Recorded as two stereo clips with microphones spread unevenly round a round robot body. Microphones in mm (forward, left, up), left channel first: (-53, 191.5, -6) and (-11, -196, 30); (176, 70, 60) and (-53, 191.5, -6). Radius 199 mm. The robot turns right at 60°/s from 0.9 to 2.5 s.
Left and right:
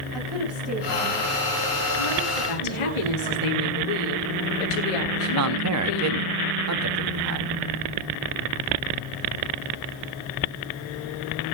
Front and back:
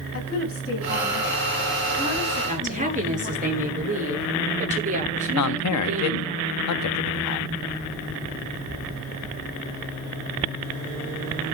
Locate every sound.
0.1 s a woman speaking: 5° left, 9.5 m; by 3.5 s 100° left, 9.5 m
2.5 s a woman speaking: 90° left, 9 m
5.4 s a man speaking: 35° right, 1.2 m